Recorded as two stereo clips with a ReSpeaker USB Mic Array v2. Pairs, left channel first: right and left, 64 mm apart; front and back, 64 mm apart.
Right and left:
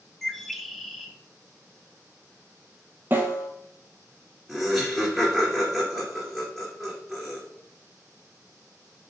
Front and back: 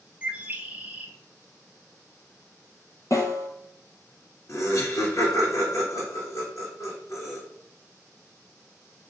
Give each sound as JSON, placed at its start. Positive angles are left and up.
{"t": 0.2, "sound": "a bird", "azimuth_deg": -170, "distance_m": 0.6}
{"t": 3.1, "sound": "a snare drum", "azimuth_deg": 35, "distance_m": 1.0}
{"t": 4.5, "sound": "laughter", "azimuth_deg": 5, "distance_m": 1.7}